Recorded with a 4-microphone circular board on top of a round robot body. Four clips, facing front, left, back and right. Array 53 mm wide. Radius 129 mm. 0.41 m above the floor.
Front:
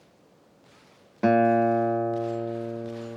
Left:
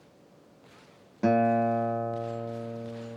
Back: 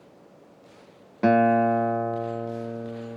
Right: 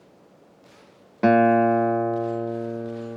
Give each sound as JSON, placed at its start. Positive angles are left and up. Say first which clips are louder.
{"t": 1.2, "sound": "a guitar", "louder": "right 7 dB, back 1 dB", "azimuth_deg": -100, "distance_m": 1.7}